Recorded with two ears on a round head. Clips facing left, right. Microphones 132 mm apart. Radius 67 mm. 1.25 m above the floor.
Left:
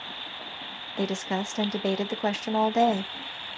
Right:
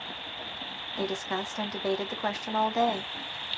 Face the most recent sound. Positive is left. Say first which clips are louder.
# left 3 dB
turn(degrees=25)  # may be behind; listen again after turning